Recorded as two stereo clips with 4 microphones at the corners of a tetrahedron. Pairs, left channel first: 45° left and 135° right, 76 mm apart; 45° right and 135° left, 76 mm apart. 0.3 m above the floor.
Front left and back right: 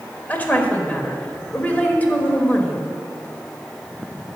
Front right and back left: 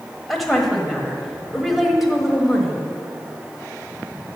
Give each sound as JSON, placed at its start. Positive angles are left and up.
{"t": 0.3, "sound": "a woman speaking", "azimuth_deg": 50, "distance_m": 1.2}